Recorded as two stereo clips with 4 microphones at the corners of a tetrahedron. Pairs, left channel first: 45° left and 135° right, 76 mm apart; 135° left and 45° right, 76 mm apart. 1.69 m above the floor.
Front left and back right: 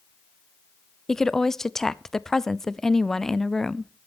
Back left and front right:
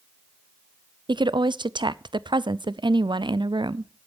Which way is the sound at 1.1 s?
40° right.